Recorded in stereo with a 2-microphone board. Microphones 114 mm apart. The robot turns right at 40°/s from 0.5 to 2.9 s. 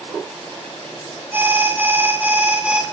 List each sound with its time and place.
1.3 s an alarm: 20° right (ahead or behind), 0.8 m; by 2.8 s 10° right (ahead or behind), 0.8 m